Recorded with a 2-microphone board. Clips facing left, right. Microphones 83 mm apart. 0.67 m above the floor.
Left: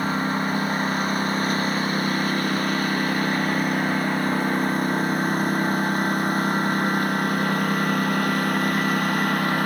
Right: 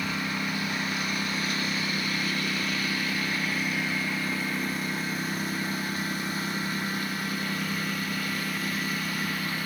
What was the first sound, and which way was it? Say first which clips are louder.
A lawn mower: left 7 dB; 40° left (ahead or behind).